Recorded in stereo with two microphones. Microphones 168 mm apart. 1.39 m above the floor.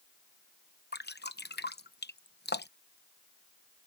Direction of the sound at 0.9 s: 80° left.